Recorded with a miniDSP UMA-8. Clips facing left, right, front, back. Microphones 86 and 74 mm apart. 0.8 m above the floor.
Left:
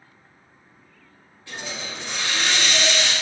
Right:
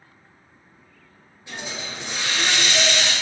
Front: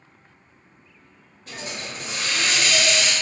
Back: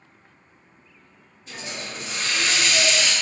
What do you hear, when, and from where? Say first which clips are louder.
1.5 s a hiss: even, front 1 dB; 20° right, 1.0 m